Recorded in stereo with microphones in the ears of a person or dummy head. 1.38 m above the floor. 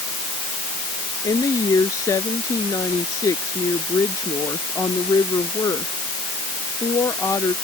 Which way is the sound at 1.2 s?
20° left (ahead or behind).